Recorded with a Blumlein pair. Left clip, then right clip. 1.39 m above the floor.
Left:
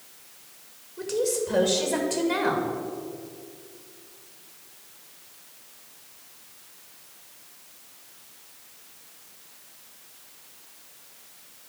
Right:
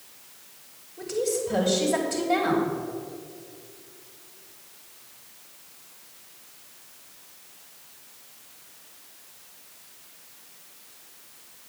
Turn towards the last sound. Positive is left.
turn(degrees=70)